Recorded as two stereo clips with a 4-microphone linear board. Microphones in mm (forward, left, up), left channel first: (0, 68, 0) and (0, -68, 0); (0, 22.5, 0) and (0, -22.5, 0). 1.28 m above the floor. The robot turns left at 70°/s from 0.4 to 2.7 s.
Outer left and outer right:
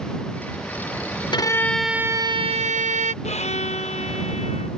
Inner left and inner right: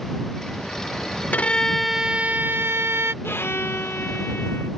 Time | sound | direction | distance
1.3 | a violin | 35° left | ?
3.2 | a violin | 55° left (ahead or behind) | ?